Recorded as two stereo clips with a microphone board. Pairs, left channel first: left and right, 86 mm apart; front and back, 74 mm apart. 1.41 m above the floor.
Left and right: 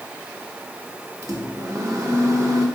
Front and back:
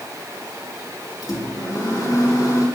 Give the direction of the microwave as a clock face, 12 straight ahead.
1 o'clock.